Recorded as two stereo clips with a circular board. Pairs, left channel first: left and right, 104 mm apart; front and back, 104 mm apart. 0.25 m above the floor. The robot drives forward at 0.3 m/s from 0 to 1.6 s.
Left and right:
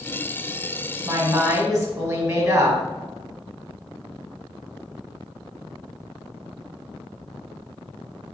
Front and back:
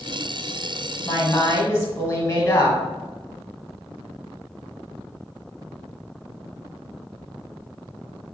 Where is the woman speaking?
40° right, 1.3 m; by 2.8 s 50° right, 1.3 m.